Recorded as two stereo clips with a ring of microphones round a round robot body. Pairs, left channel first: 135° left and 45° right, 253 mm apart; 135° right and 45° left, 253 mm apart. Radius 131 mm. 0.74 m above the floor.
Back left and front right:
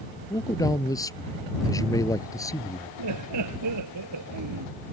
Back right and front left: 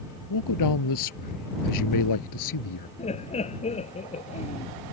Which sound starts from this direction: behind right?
A man speaking, at 0.3 s.